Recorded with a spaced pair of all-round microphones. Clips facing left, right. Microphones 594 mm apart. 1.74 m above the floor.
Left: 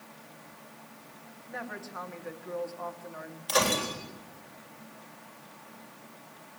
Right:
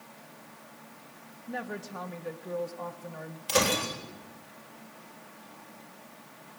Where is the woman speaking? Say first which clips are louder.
Right 4 dB; 55° right (ahead or behind), 1.5 m.